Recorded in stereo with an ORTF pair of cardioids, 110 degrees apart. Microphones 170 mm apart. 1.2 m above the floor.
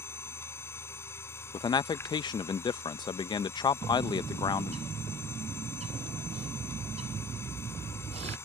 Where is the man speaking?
25° left.